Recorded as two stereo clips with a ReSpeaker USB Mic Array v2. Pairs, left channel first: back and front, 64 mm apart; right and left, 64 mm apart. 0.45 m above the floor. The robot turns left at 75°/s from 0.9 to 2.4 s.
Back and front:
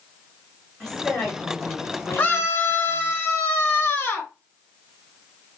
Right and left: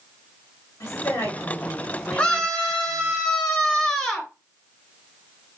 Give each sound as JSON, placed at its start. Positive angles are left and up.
{"t": 0.8, "sound": "a woman speaking", "azimuth_deg": -95, "distance_m": 2.5}
{"t": 2.2, "sound": "a scream", "azimuth_deg": -145, "distance_m": 1.5}